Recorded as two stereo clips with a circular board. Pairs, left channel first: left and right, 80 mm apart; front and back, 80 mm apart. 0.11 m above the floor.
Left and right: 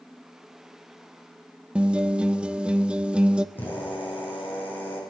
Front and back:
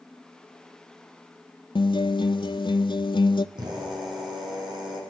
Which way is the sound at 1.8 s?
10° right.